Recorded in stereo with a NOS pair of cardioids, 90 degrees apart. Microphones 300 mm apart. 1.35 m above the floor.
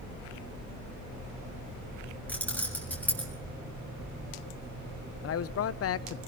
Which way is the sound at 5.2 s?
55° left.